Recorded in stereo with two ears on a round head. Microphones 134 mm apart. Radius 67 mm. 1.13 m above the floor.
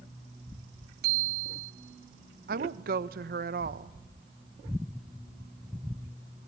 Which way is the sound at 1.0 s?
75° right (ahead or behind).